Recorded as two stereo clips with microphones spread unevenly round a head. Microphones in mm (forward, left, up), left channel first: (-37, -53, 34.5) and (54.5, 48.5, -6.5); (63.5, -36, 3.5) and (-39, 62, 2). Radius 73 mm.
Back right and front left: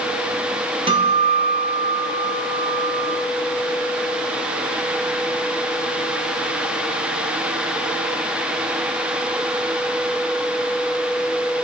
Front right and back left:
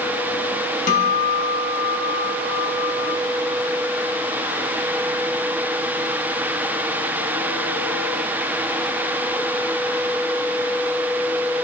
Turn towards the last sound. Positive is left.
turn(degrees=-5)